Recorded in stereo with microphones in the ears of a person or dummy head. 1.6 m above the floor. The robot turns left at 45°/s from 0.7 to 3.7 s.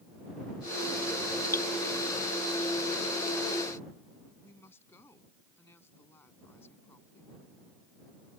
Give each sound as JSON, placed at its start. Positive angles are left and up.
{"t": 1.5, "sound": "dripping", "side_deg": 15}
{"t": 4.4, "sound": "a woman speaking", "side_deg": 10}